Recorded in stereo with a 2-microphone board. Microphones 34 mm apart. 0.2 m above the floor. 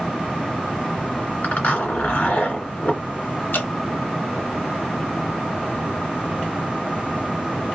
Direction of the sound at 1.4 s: 55° left (ahead or behind).